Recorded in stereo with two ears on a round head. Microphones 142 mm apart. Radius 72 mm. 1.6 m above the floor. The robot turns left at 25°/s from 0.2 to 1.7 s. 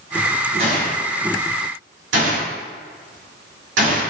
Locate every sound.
0.6 s a gunshot: 50° right (ahead or behind), 3.5 m; by 4.1 s 80° right, 3.5 m